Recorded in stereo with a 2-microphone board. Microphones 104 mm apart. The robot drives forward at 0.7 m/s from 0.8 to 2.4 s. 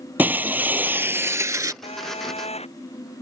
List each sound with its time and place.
0.2 s breaking glass: 15° right (ahead or behind); by 1.7 s 35° right (ahead or behind)
1.8 s a phone buzzing: 75° left (ahead or behind)